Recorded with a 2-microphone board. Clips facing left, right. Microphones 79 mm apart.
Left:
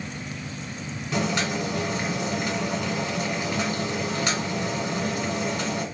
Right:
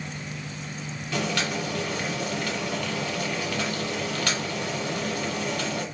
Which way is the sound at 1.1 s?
20° left (ahead or behind).